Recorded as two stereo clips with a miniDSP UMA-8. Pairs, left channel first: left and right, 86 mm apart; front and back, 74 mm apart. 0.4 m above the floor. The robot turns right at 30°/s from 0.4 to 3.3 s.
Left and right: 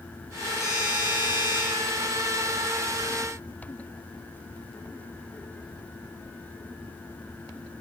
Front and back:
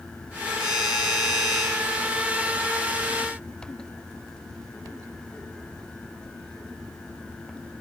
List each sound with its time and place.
0.6 s a doorbell: 175° right, 6 m; by 1.6 s 145° right, 6 m